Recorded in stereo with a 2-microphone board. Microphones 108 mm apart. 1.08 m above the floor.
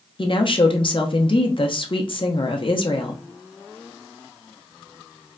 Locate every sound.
0.2 s a woman speaking: 50° left (ahead or behind), 0.7 m